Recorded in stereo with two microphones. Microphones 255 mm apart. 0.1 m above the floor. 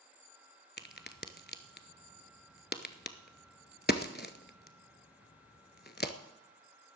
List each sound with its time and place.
0.8 s a crack: 40° left (ahead or behind), 0.8 m